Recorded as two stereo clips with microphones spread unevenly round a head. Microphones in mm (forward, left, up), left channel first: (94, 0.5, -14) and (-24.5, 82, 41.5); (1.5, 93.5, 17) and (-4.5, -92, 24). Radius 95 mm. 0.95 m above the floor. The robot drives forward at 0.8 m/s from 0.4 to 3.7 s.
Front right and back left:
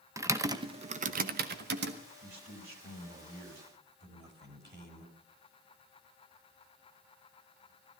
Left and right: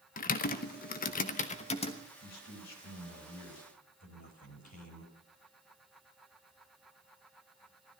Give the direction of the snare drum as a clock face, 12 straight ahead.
I don't hear a snare drum.